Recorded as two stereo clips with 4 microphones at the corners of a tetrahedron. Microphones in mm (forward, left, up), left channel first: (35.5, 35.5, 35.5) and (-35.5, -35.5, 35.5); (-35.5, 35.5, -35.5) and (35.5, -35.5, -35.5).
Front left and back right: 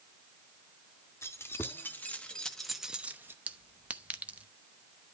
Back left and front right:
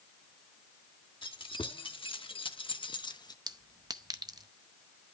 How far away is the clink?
About 0.7 m.